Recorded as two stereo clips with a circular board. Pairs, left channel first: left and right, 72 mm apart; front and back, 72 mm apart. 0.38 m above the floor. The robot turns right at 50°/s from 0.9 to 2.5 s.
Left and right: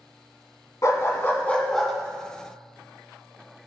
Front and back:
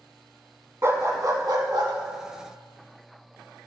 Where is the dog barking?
130° left, 1.5 m; by 1.9 s straight behind, 1.5 m.